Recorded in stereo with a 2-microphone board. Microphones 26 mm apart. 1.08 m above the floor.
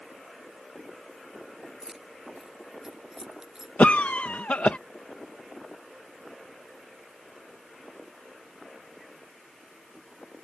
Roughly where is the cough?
Left.